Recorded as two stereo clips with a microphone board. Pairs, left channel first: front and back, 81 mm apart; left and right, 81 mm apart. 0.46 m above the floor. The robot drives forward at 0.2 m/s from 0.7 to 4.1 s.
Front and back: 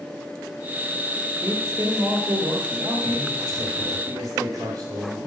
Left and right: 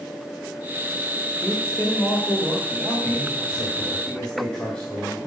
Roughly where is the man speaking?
Behind.